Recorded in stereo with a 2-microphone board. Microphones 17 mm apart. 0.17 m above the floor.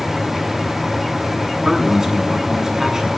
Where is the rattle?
No rattle in this recording.